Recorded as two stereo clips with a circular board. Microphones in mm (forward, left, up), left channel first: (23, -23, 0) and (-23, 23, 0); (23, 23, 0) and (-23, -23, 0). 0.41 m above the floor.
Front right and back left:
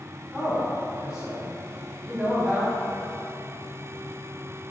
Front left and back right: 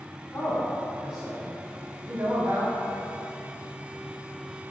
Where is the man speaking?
55° left, 0.9 m; by 2.7 s 150° right, 1.5 m.